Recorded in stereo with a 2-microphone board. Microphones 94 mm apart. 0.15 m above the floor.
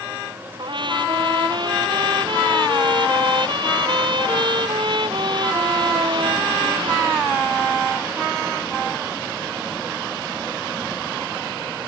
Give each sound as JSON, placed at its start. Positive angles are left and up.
{"t": 0.6, "sound": "a trumpet", "side_deg": -60}